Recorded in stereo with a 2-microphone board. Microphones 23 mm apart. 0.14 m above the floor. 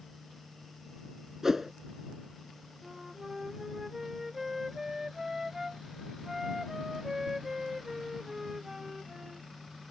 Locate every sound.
1.4 s a whoosh: 20° right (ahead or behind)
2.8 s a flute: 15° right (ahead or behind)